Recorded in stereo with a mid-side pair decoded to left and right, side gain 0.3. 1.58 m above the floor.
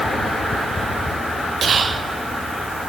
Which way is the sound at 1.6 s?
60° right.